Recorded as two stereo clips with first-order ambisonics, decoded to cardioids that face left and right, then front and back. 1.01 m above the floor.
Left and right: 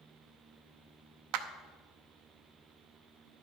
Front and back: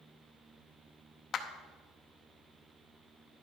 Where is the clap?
65° right, 0.8 m.